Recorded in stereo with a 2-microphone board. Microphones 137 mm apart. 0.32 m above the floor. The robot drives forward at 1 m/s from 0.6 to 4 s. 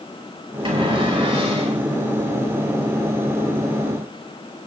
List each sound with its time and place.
0.7 s a cupboard door: 40° right (ahead or behind), 6 m; by 1.8 s 45° right (ahead or behind), 5 m